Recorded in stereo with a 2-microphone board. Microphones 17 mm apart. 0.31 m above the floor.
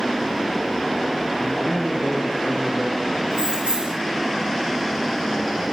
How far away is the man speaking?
About 4 m.